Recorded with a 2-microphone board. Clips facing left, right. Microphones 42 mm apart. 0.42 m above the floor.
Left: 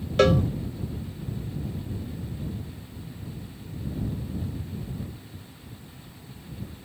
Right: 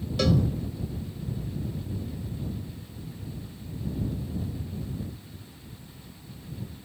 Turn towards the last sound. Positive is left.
turn(degrees=45)  # may be behind; listen again after turning